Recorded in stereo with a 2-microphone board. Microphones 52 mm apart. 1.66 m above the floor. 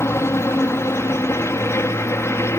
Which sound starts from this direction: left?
A helicopter, at 0.0 s.